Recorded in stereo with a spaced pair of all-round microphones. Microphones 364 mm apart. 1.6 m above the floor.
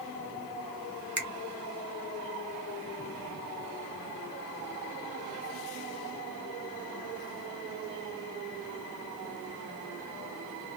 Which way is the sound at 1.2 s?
50° right (ahead or behind).